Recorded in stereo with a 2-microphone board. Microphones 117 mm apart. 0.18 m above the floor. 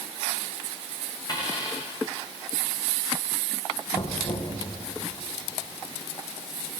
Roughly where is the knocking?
Left.